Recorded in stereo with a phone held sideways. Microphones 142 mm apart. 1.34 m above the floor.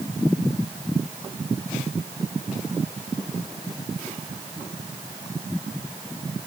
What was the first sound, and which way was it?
Only background noise.